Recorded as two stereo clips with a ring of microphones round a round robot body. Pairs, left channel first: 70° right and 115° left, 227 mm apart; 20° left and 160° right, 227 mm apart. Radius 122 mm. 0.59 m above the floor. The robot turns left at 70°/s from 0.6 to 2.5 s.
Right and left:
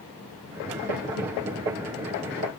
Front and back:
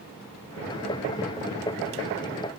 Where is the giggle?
No giggle in this recording.